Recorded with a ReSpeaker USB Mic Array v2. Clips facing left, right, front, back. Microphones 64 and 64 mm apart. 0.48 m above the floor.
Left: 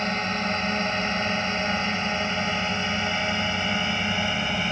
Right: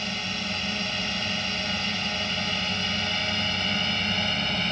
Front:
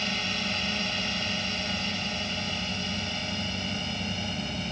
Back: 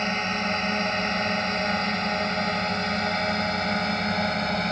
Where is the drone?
135° left; by 4.7 s 165° left.